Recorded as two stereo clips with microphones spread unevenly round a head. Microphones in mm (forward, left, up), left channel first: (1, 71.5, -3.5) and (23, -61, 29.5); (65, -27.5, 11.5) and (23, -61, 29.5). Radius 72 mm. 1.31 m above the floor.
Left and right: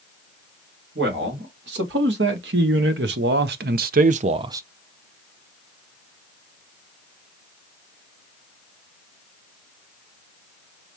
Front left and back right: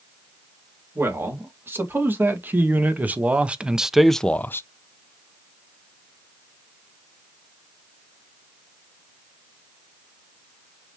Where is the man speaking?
95° right, 2.5 m; by 4.7 s 5° right, 0.5 m.